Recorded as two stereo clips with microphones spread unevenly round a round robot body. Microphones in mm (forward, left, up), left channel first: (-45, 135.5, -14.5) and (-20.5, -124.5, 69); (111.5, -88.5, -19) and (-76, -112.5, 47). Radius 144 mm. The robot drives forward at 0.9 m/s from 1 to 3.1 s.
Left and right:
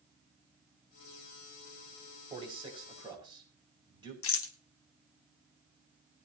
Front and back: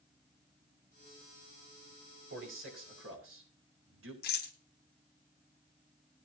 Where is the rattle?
55° left, 1.2 m.